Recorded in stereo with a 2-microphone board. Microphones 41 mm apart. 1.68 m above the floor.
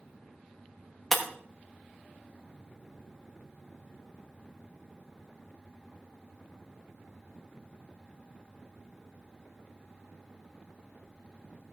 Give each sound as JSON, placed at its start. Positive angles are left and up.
{"t": 1.1, "sound": "breaking glass", "side_deg": 0, "distance_m": 1.2}